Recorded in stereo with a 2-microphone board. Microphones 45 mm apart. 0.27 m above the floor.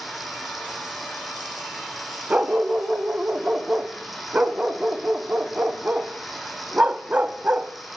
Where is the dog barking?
35° right (ahead or behind), 0.6 m.